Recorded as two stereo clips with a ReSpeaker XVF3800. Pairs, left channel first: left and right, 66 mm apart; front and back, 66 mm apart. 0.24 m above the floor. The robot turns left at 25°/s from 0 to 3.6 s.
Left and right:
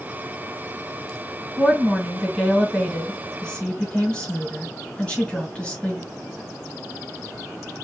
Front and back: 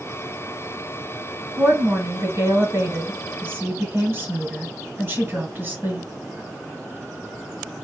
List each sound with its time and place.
1.6 s a woman speaking: 150° right, 1.5 m; by 6.0 s 160° left, 1.5 m